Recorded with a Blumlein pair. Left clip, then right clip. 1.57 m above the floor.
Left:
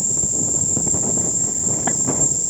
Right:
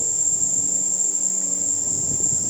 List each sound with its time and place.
0.0 s an insect: 60° left, 3 m